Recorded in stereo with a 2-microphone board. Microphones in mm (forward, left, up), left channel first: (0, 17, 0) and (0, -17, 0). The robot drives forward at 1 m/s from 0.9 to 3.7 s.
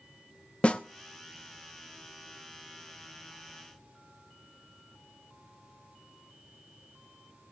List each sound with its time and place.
0.6 s a snare drum: 35° left (ahead or behind), 0.7 m